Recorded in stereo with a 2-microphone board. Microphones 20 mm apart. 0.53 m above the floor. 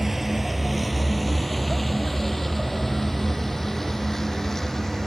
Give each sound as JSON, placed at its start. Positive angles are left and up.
{"t": 0.0, "sound": "a vehicle", "side_deg": -15}